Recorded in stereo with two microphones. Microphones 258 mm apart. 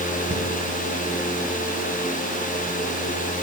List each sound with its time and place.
0.3 s a cupboard door: 50° right (ahead or behind), 5.5 m